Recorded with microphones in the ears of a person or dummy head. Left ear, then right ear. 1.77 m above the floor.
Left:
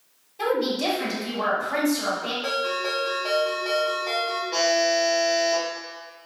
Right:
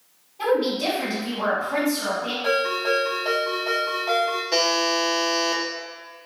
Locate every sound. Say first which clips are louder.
0.4 s a woman speaking: right 2 dB; 85° left, 1.4 m
2.4 s a ringtone: right 6 dB; 50° left (ahead or behind), 1.0 m
4.5 s a buzzer: left 1 dB; 35° right (ahead or behind), 0.5 m